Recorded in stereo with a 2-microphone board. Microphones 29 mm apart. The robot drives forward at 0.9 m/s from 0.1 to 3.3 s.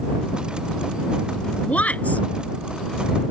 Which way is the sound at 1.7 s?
60° left (ahead or behind).